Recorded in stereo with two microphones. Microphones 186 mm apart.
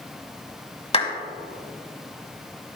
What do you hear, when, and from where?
0.9 s a clap: 30° left (ahead or behind), 1.4 m